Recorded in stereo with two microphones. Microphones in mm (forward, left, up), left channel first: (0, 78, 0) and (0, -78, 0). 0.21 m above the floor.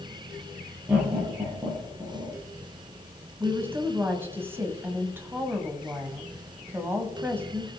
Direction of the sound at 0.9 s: 10° right (ahead or behind).